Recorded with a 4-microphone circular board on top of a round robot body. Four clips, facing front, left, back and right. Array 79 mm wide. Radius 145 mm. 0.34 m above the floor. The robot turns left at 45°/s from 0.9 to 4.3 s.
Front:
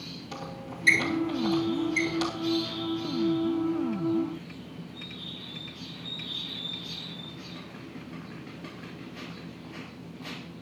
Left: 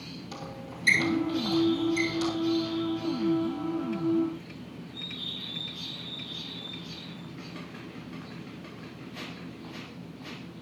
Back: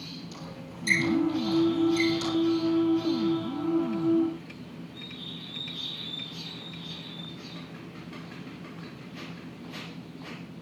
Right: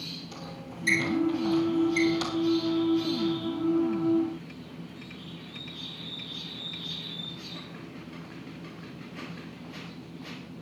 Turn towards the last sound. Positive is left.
turn(degrees=-150)